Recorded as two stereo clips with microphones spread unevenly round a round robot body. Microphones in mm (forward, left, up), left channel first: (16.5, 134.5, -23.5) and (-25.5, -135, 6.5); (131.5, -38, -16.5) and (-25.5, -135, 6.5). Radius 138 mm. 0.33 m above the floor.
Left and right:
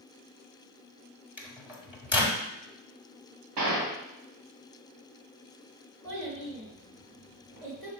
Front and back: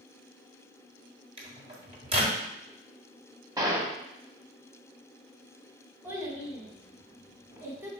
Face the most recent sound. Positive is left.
turn(degrees=-70)